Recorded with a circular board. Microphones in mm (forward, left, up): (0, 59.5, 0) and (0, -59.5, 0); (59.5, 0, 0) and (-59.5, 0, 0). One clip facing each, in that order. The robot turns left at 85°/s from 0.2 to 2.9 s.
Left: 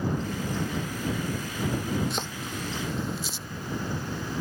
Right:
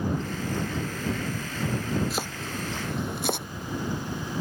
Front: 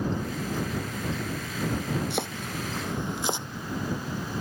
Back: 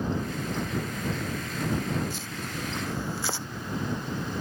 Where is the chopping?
Straight ahead; by 3.5 s 70° right.